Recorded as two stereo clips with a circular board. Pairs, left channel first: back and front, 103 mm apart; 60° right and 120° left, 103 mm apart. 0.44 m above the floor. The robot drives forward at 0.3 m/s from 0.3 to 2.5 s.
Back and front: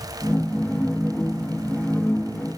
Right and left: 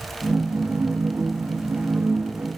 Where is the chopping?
I don't hear chopping.